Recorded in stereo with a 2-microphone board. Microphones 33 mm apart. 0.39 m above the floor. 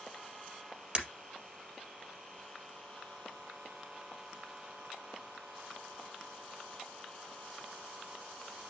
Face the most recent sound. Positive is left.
turn(degrees=-25)  # may be behind; listen again after turning